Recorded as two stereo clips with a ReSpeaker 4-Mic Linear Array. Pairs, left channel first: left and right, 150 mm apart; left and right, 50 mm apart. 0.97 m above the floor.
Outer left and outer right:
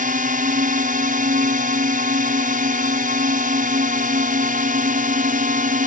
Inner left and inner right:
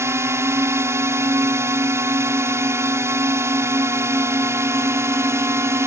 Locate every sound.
0.0 s a drone: 65° right (ahead or behind)